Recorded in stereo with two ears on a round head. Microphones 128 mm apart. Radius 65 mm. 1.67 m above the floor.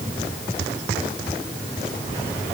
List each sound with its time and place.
Only background noise.